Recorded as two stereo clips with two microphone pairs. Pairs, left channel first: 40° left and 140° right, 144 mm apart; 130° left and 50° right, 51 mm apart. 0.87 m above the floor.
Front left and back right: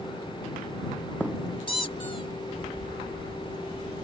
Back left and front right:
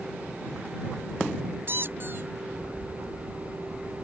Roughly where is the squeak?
Ahead.